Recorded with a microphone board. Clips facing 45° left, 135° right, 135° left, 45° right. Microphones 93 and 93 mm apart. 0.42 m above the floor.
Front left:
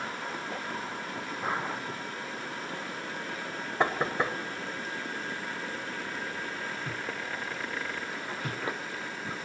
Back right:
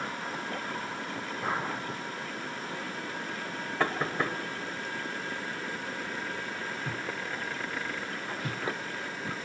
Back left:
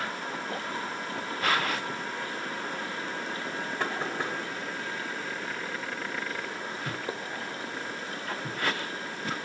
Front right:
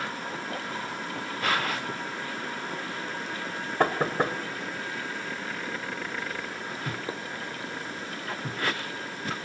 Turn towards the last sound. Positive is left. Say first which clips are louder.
# front left 2 dB, front right 9 dB
turn(degrees=-25)